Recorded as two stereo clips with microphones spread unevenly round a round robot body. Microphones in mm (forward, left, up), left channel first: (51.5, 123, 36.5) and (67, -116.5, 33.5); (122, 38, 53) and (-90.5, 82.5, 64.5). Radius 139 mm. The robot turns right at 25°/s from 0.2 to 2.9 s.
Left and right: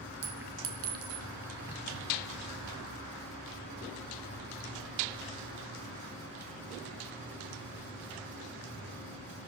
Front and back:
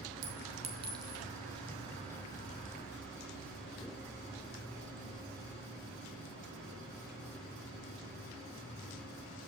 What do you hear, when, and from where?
0.2 s a clink: 140° right, 3.5 m; by 1.2 s 110° right, 3.5 m